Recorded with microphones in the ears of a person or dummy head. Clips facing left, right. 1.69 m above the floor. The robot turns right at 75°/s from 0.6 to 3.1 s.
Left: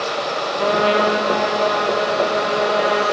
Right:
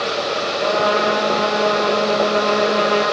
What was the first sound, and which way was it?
A trumpet, 120° left.